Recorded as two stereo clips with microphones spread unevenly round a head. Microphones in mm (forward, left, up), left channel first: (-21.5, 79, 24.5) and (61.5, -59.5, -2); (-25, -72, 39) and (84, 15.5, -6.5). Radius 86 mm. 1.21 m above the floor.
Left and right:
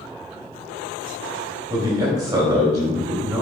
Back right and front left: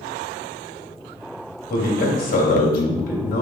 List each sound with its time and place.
1.7 s a man speaking: 125° right, 2.5 m